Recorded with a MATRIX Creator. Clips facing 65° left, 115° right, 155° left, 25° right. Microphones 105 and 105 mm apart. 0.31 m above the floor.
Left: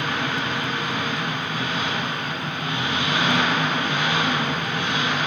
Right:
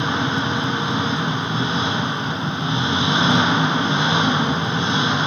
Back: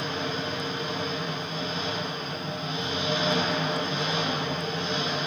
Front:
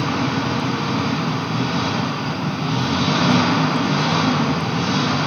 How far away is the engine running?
About 1.0 m.